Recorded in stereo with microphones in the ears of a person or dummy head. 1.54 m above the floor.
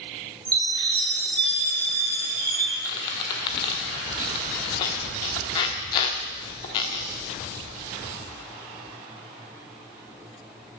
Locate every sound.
0.5 s a chime: 25° right (ahead or behind), 8 m
2.9 s a squeak: 25° left (ahead or behind), 1.2 m